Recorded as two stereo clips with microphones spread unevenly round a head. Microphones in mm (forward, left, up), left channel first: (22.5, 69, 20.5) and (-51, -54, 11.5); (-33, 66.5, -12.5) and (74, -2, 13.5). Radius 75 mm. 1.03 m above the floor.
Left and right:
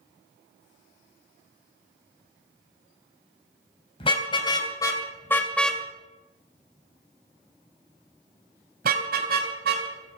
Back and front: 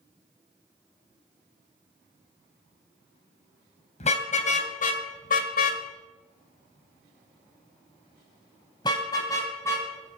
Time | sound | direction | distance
4.0 | a car horn | 110° left | 3 m